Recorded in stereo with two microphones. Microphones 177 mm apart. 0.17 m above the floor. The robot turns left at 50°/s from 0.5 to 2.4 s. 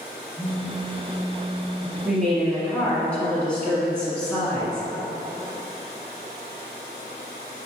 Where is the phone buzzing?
45° right, 1.6 m; by 1.9 s 120° right, 1.6 m.